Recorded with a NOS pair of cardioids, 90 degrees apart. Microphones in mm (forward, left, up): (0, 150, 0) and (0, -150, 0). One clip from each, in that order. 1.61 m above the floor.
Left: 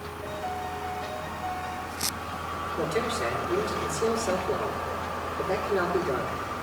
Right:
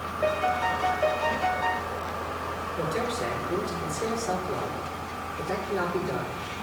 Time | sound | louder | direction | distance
0.2 | a piano | right 9 dB | 70° right | 0.6 m
2.8 | a man speaking | left 1 dB | 10° left | 5.5 m